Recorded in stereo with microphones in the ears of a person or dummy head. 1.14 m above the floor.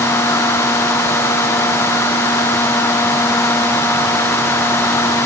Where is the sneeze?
No sneeze in this recording.